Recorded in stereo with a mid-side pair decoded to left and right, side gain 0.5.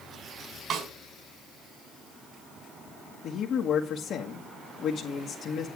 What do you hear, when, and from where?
0.7 s a snare drum: 65° right, 4 m
3.2 s a man speaking: 65° left, 1.5 m